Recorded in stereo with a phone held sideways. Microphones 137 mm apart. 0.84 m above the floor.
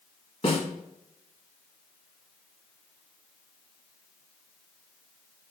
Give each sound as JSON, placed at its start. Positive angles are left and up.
{"t": 0.4, "sound": "a snare drum", "side_deg": 45, "distance_m": 1.8}